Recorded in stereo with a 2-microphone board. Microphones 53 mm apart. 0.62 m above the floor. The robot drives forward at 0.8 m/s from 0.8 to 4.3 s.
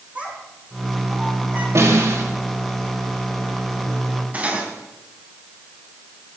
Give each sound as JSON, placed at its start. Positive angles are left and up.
{"t": 0.1, "sound": "a child speaking", "side_deg": -30, "distance_m": 5.5}
{"t": 1.8, "sound": "a snare drum", "side_deg": -70, "distance_m": 3.5}
{"t": 4.3, "sound": "cutlery clinking", "side_deg": -30, "distance_m": 3.0}